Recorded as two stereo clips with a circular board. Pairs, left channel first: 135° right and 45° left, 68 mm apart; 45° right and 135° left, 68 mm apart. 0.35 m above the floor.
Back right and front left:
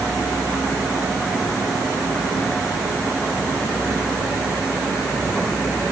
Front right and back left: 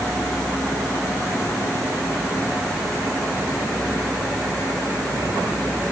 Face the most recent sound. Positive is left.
No sound to turn to.